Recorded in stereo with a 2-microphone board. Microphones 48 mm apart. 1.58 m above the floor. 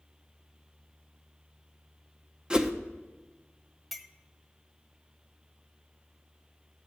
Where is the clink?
Centre (ahead or behind), 0.6 m.